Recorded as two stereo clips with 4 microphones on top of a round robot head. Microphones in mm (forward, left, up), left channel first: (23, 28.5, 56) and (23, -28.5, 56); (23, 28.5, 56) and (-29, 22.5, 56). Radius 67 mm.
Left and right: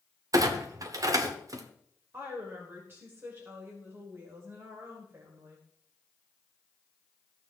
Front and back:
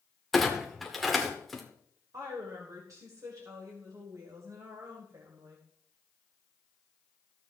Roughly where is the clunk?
Right.